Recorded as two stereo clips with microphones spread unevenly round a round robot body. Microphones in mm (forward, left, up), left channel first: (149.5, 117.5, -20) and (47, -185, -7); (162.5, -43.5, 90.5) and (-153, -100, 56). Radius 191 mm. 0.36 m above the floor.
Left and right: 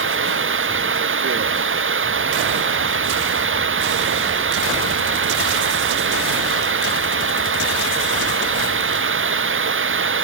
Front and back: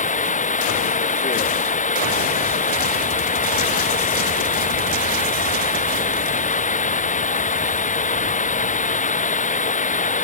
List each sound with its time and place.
0.0 s running water: 55° right